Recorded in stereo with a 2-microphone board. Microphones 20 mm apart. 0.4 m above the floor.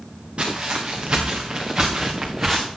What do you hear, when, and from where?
0.4 s footsteps: 55° right (ahead or behind), 4 m; by 2.7 s 25° right (ahead or behind), 2 m